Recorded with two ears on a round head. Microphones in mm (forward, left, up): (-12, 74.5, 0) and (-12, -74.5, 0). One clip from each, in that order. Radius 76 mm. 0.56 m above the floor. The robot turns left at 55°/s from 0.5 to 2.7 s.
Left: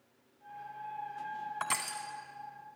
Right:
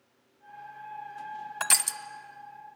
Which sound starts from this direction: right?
Crushing, at 1.6 s.